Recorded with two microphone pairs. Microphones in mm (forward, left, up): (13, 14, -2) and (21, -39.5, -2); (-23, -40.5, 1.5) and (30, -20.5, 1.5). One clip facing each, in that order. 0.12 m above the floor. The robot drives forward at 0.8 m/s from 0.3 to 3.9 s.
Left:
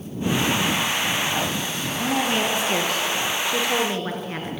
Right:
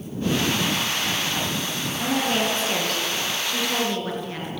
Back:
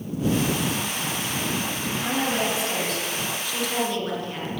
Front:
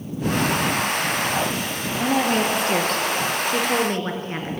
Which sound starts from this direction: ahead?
A woman speaking, at 2.0 s.